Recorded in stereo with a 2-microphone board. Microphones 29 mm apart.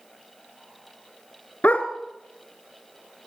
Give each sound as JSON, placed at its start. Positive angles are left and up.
{"t": 1.6, "sound": "a dog barking", "side_deg": 55, "distance_m": 1.9}